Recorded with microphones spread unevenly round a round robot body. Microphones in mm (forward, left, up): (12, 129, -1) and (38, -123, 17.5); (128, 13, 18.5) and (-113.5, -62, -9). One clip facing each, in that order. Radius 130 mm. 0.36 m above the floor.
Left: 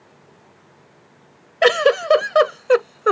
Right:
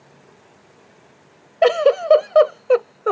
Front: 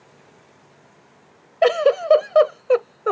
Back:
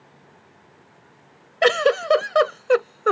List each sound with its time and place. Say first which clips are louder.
1.6 s a giggle: right 1 dB, front 2 dB; 145° left